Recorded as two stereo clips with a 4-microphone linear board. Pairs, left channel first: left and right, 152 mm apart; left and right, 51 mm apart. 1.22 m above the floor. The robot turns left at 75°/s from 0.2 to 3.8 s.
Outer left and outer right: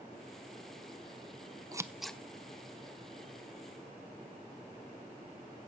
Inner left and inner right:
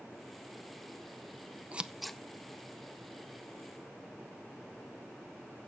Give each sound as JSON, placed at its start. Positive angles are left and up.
{"t": 1.7, "sound": "scissors", "side_deg": -25, "distance_m": 0.5}